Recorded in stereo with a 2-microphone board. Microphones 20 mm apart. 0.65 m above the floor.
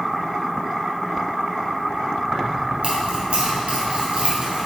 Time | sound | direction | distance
2.3 | keys jangling | 85° right | 1.7 m